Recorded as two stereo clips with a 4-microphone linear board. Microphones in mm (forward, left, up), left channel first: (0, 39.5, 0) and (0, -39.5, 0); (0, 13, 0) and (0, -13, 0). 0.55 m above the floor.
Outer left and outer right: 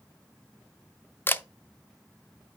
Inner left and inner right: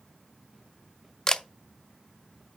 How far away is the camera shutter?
About 0.6 m.